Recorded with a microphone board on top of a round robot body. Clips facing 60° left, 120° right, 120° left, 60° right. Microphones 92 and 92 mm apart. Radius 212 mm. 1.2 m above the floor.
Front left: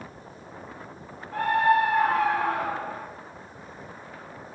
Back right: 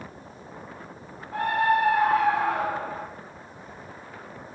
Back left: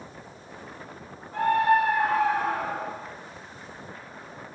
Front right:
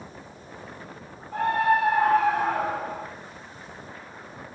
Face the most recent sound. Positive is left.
turn(degrees=-50)